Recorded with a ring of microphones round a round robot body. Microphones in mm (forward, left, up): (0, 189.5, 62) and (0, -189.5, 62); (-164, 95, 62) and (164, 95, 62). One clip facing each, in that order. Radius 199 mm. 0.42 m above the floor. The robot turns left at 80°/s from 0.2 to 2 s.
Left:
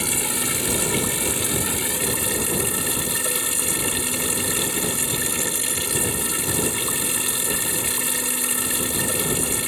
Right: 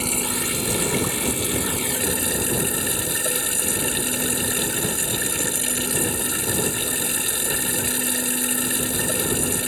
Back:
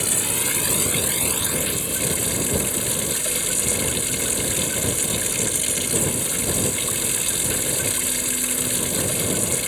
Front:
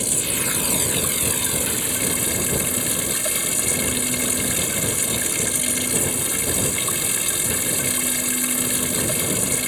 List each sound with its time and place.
0.0 s running water: 155° left; by 9.7 s 10° left